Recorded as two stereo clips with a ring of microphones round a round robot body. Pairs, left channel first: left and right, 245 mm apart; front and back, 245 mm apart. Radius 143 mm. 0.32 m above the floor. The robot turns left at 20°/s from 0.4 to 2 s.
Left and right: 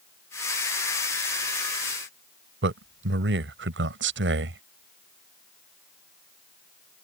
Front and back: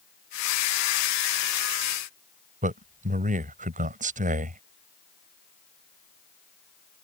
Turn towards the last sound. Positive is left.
turn(degrees=-125)